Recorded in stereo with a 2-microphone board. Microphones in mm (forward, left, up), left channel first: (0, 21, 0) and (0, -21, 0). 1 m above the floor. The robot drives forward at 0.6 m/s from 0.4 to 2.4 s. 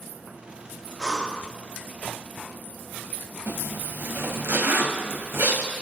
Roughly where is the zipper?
Right.